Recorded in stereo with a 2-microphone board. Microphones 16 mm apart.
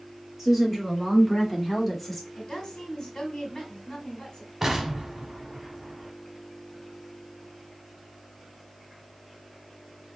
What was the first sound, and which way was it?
A woman speaking, 10° right (ahead or behind).